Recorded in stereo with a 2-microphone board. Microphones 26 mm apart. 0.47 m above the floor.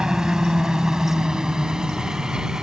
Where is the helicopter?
30° right (ahead or behind).